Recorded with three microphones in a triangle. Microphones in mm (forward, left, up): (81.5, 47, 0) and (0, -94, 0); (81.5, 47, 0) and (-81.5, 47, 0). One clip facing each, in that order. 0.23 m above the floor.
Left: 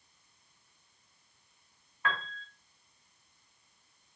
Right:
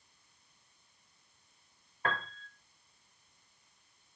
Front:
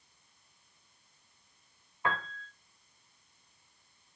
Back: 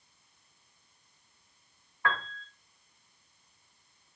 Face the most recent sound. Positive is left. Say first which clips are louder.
# even, back 1 dB
turn(degrees=-70)